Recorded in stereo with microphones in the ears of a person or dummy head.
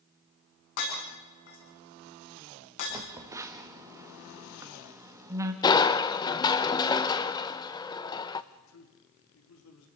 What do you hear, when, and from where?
0.8 s breaking glass: 70° left (ahead or behind), 10 m
2.9 s a phone buzzing: 10° right (ahead or behind), 1.2 m
5.6 s crushing: 25° left (ahead or behind), 0.9 m
8.5 s a man speaking: 85° left, 4 m